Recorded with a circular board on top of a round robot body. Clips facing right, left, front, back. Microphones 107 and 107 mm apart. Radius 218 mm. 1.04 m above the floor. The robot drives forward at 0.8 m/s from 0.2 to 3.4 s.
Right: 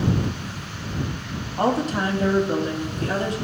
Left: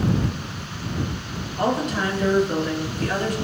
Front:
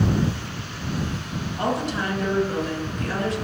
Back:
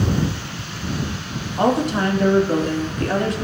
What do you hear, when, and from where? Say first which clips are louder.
1.6 s a woman speaking: right 1 dB, back 7 dB; 140° right, 3 m; by 3.4 s 150° right, 4 m